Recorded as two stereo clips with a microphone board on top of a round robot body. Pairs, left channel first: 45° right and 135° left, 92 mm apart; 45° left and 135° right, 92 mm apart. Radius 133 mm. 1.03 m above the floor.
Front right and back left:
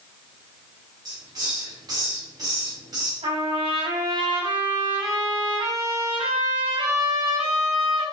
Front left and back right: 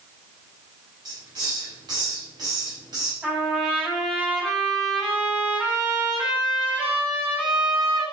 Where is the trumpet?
150° left, 5.5 m.